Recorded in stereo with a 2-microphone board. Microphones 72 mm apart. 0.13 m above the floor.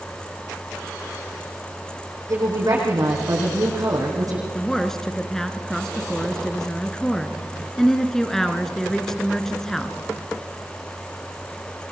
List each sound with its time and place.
2.3 s a woman speaking: 55° right (ahead or behind), 6 m
4.5 s a woman speaking: 5° left (ahead or behind), 2.0 m